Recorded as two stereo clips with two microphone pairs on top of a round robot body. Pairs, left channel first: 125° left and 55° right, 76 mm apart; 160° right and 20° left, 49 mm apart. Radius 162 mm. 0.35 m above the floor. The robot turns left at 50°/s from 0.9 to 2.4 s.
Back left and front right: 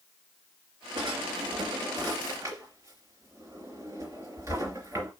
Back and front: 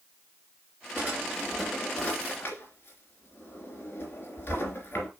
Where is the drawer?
35° right, 3 m; by 5.1 s 110° right, 3 m.